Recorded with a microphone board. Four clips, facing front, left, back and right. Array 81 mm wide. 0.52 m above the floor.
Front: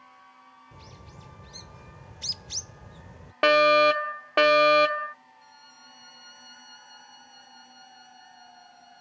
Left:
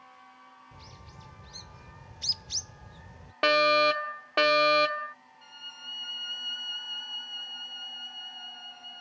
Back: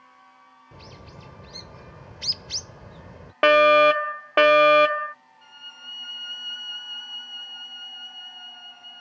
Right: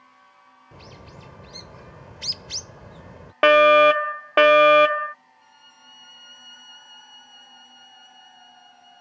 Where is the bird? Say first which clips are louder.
Right 6 dB, back 7 dB; 125° right.